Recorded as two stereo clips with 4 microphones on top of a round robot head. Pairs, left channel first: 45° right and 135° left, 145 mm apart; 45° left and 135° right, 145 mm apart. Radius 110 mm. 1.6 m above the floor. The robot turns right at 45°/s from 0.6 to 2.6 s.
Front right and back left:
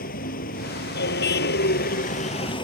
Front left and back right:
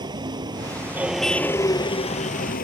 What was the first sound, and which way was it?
A vehicle, 75° right.